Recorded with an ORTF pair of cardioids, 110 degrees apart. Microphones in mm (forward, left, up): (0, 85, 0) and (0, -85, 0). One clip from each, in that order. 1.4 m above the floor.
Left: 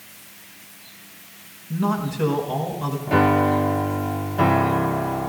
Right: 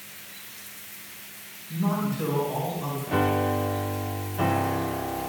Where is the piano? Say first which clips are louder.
Left 7 dB; 35° left, 0.8 m.